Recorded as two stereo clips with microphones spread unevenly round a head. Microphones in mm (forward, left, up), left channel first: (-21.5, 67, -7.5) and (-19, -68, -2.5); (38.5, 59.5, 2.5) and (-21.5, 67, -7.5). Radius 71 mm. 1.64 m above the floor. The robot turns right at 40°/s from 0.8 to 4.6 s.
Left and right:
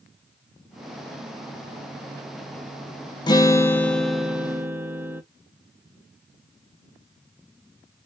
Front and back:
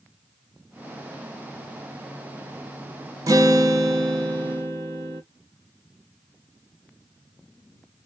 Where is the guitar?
150° left, 0.8 m; by 5.2 s 155° right, 0.8 m.